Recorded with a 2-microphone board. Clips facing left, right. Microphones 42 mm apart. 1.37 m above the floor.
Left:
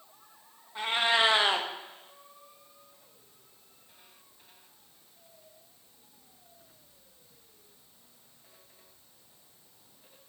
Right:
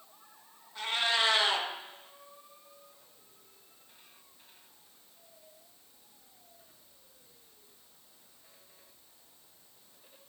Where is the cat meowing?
20° left (ahead or behind), 0.7 m.